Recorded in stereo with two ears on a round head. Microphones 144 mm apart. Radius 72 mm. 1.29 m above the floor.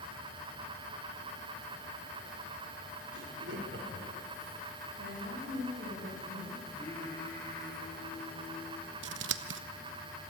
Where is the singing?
20° left (ahead or behind), 9 m.